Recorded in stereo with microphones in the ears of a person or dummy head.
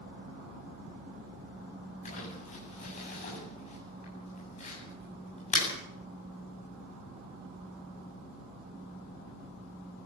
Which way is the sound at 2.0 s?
40° left (ahead or behind).